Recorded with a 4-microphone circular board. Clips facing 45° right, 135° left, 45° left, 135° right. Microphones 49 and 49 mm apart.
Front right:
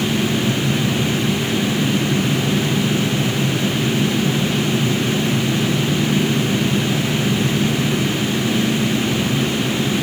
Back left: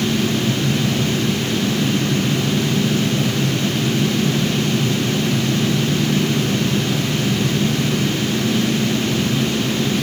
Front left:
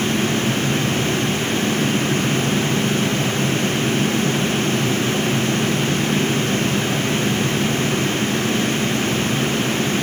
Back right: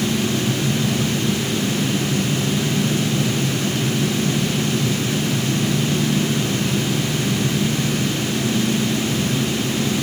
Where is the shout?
I don't hear a shout.